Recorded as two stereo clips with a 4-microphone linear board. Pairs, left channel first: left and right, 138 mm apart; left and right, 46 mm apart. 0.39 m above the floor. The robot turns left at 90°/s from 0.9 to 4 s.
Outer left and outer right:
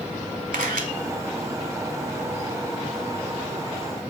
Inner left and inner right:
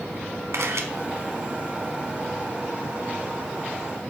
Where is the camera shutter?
85° right, 0.9 m.